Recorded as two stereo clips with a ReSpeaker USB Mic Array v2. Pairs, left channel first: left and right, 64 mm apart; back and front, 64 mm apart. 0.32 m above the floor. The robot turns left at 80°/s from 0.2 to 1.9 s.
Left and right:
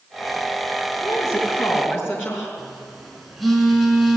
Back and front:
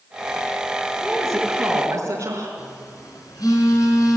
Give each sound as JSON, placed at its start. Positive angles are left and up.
{"t": 1.0, "sound": "a woman speaking", "azimuth_deg": 110, "distance_m": 4.0}
{"t": 2.6, "sound": "a phone buzzing", "azimuth_deg": 180, "distance_m": 4.0}